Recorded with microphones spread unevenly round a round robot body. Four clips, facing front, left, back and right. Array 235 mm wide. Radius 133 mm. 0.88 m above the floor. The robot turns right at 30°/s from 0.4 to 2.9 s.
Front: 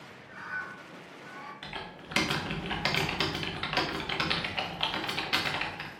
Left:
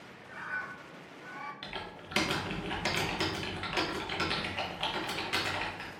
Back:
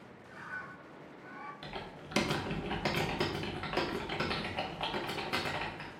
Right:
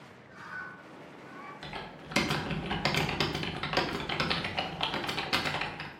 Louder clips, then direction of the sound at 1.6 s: Right 1 dB, front 2 dB; 165° right.